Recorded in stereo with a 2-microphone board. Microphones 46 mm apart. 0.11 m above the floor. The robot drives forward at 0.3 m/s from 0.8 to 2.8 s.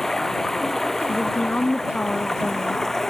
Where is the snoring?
No snoring in this recording.